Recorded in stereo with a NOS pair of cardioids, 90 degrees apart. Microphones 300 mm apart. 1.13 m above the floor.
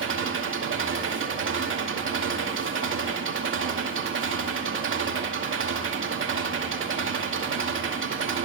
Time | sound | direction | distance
0.0 | an engine running | 40° right | 2.5 m